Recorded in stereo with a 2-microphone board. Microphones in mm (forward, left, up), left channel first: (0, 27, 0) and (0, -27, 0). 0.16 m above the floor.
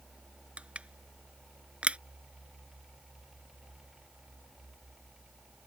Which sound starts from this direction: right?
Crushing, at 0.6 s.